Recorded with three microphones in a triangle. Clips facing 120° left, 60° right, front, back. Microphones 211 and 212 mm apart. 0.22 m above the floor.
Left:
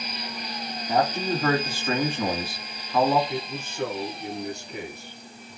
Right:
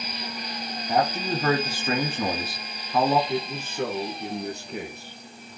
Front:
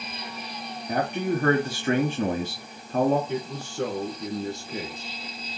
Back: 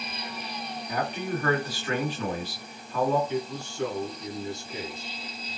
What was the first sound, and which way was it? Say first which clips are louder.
A man speaking: left 1 dB, front 5 dB; 20° left.